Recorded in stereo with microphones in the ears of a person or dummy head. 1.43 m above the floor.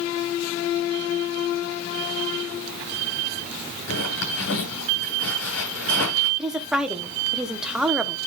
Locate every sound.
3.9 s a zipper: 75° left (ahead or behind), 7 m
6.4 s a woman speaking: 10° right (ahead or behind), 1.0 m